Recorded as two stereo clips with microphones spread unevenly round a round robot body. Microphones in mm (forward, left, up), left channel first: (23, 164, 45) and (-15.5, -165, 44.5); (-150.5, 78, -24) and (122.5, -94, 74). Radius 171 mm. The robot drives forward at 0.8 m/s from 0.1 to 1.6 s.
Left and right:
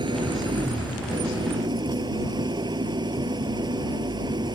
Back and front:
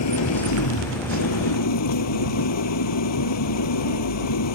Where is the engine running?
175° right.